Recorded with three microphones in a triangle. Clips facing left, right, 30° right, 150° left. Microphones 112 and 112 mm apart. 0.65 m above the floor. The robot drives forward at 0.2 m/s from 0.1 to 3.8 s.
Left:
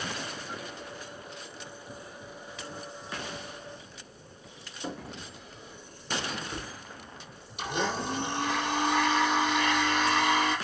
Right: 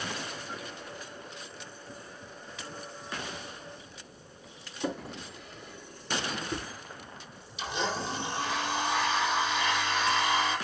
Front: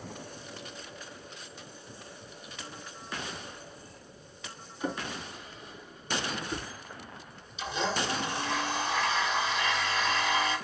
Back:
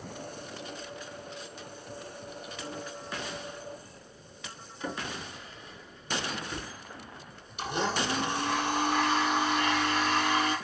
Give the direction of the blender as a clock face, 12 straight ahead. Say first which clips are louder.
Left 2 dB, back 1 dB; 8 o'clock.